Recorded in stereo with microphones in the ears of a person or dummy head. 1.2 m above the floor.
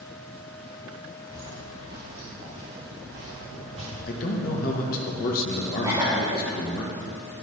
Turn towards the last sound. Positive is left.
turn(degrees=-15)  # may be behind; listen again after turning